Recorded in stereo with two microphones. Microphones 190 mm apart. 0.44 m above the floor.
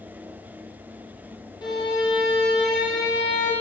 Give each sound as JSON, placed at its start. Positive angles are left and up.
{"t": 1.6, "sound": "a violin", "side_deg": 25, "distance_m": 4.5}